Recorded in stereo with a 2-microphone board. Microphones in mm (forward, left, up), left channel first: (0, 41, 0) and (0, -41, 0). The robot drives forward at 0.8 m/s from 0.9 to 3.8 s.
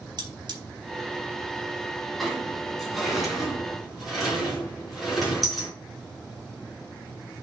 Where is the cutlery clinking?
60° right (ahead or behind), 1.9 m.